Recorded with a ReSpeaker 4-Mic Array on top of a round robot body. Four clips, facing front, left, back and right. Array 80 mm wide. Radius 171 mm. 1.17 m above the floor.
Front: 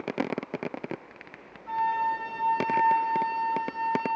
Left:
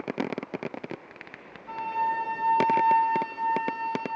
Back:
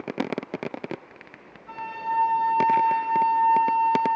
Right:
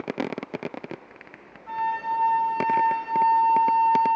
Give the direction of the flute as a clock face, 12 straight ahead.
2 o'clock.